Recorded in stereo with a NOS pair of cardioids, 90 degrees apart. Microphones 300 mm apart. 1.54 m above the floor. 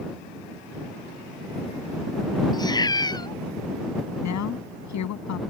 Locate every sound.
2.5 s a cat meowing: 15° left
4.2 s a woman speaking: 65° left